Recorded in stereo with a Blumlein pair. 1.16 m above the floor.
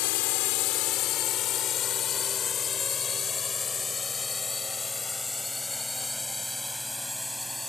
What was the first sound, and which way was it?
A drone, 45° left.